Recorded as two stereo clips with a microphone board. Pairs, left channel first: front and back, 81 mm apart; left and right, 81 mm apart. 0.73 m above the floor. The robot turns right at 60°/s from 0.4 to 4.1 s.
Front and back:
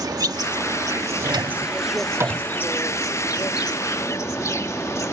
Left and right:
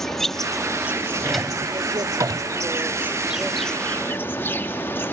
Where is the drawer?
170° left; by 2.5 s 110° right.